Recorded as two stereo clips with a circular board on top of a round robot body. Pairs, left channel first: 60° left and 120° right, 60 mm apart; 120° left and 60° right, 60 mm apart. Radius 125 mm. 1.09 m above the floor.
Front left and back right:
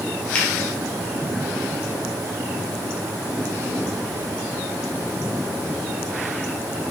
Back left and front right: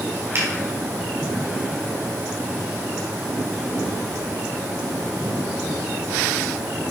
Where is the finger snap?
15° right, 3.5 m.